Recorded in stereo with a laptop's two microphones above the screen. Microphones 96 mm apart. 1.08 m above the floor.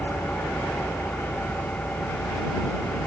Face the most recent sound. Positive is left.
turn(degrees=15)  # may be behind; listen again after turning